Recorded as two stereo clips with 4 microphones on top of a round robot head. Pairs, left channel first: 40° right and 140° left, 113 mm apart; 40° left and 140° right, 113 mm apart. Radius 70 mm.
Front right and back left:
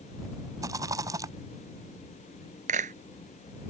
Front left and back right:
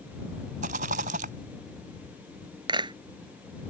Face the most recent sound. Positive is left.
turn(degrees=165)